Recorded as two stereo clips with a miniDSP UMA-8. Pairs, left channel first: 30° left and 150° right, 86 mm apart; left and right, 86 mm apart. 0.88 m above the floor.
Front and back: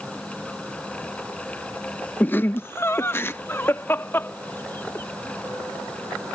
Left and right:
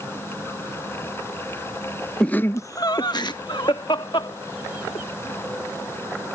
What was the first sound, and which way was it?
Laughter, 30° left.